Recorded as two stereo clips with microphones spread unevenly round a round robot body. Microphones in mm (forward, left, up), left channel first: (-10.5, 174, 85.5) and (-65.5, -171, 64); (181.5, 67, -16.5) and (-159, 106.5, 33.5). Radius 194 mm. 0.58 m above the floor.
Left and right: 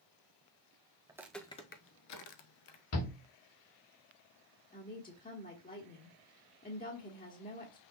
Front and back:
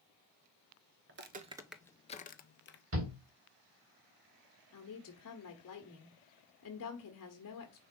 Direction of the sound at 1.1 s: 175° right.